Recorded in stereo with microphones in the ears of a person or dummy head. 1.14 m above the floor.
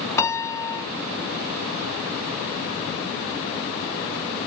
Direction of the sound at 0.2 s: 15° left (ahead or behind).